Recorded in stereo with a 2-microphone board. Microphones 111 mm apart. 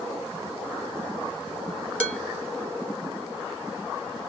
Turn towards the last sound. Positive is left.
turn(degrees=15)  # may be behind; listen again after turning